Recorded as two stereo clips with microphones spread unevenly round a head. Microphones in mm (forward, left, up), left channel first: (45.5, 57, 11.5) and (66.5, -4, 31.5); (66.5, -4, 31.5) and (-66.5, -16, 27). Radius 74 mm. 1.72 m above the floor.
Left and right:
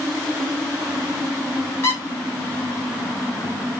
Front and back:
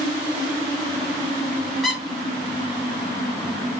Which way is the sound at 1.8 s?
95° left.